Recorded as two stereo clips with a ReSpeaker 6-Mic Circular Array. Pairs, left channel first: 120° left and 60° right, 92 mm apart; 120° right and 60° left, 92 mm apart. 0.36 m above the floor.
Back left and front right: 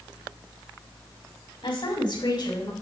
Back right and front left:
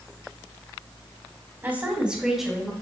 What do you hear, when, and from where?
1.6 s a woman speaking: 125° left, 3 m; by 2.7 s 155° left, 3.5 m